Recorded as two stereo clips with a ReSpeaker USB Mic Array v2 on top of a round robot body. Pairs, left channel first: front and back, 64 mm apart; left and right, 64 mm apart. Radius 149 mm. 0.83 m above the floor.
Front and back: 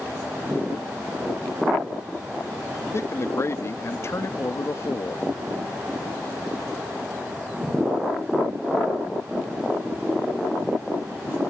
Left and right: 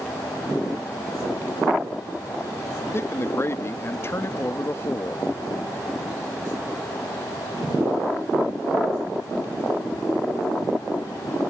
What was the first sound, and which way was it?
A man speaking, 45° left.